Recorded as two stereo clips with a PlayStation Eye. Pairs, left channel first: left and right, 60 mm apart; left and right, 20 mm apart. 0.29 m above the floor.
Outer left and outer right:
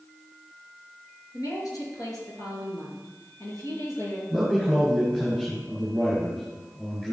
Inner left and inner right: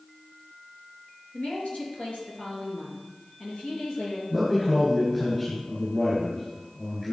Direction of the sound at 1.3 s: 75° left (ahead or behind).